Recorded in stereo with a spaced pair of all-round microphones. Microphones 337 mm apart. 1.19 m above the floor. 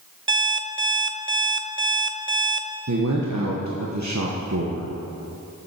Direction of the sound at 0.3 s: 35° right (ahead or behind).